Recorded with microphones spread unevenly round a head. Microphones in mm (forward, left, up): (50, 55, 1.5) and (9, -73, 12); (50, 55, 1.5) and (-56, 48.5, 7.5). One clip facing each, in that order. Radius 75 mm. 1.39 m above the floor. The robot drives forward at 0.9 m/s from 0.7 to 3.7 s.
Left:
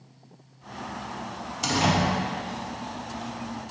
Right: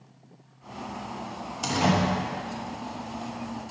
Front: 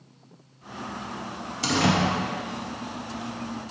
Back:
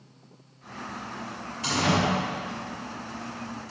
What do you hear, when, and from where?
1.6 s a door slam: 20° right, 1.4 m; by 2.0 s 25° right, 1.2 m